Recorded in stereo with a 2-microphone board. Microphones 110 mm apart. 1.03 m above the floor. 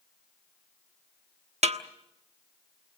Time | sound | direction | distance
1.6 | a snare drum | 80° right | 1.1 m